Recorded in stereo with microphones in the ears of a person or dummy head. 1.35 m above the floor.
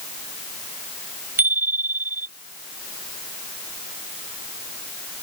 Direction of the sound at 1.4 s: 10° right (ahead or behind).